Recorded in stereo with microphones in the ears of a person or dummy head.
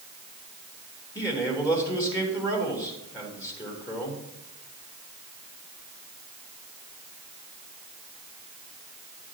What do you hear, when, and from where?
1.1 s a man speaking: 20° left (ahead or behind), 2.5 m